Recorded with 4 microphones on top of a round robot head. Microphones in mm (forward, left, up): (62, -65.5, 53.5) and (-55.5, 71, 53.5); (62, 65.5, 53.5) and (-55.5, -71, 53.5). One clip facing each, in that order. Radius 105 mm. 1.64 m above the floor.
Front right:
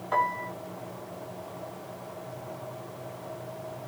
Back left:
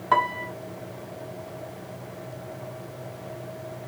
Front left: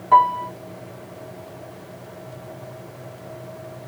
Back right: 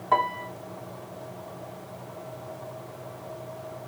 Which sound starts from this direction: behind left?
A piano, at 0.1 s.